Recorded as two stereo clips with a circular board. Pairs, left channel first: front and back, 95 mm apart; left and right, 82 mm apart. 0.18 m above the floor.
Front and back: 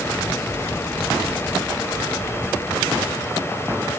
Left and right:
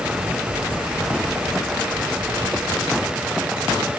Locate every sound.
Only background noise.